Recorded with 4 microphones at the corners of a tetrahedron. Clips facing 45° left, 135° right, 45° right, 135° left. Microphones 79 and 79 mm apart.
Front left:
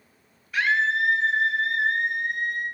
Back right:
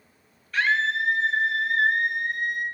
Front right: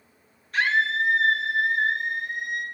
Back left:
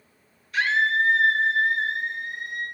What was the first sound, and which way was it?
A scream, 35° right.